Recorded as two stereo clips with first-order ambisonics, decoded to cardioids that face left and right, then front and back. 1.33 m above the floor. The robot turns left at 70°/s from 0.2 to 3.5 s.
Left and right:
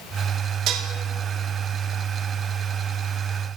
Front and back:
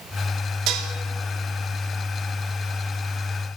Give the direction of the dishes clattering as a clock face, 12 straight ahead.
5 o'clock.